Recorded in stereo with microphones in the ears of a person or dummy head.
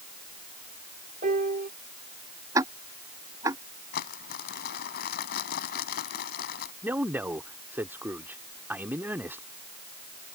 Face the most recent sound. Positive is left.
turn(degrees=-5)  # may be behind; listen again after turning